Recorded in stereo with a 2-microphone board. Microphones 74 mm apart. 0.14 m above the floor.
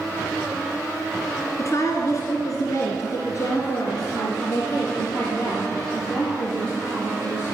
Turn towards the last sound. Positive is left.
turn(degrees=35)  # may be behind; listen again after turning